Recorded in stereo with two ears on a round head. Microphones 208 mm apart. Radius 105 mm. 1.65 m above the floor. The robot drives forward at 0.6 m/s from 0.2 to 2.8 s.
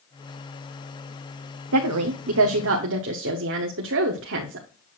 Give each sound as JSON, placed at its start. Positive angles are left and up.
{"t": 1.7, "sound": "a woman speaking", "side_deg": -75, "distance_m": 0.8}